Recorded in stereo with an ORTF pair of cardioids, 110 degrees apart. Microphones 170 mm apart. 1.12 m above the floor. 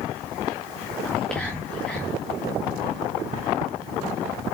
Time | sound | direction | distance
1.1 | whispering | 5° left | 1.7 m